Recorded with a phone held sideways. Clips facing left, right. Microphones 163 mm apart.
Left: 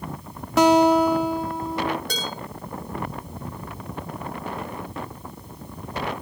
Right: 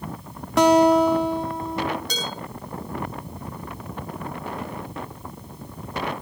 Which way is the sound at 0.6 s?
Centre (ahead or behind).